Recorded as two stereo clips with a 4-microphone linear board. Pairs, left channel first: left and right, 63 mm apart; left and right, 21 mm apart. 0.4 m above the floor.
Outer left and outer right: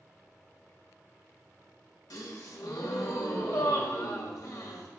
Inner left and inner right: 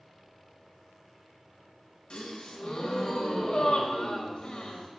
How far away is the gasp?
About 0.6 m.